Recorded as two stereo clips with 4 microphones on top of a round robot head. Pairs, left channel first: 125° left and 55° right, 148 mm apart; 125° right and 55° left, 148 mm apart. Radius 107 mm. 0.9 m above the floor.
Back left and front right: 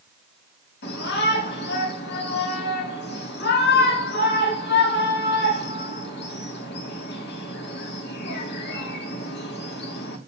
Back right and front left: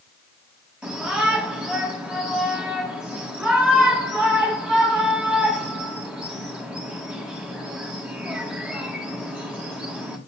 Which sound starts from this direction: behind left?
A shout, at 0.8 s.